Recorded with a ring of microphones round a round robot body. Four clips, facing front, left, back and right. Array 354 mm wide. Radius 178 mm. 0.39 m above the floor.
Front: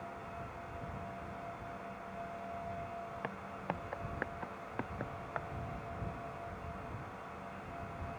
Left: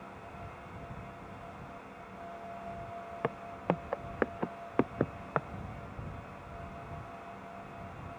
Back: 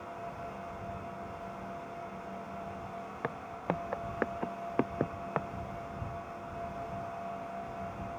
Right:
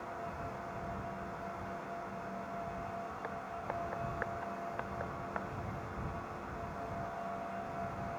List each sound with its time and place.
3.2 s footsteps: 110° left; by 5.5 s 130° left